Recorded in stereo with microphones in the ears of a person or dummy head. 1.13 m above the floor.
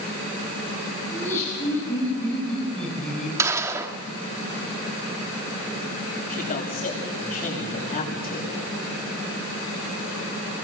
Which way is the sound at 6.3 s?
45° left (ahead or behind).